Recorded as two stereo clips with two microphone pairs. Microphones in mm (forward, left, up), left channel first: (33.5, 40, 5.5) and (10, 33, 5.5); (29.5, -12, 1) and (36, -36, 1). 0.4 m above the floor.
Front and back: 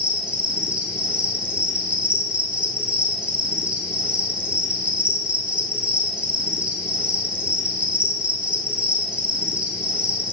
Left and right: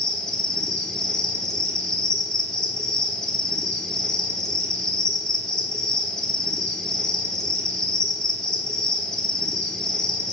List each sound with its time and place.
0.0 s an insect: 170° left, 1.4 m